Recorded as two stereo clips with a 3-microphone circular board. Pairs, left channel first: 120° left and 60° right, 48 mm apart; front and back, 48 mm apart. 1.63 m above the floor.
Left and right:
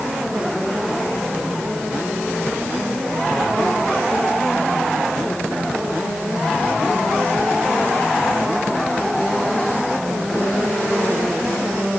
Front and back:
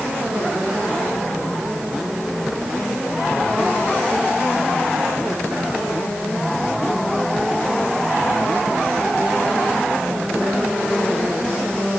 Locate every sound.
Only background noise.